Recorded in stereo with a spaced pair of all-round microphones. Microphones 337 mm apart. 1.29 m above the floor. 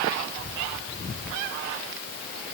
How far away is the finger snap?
I don't hear a finger snap.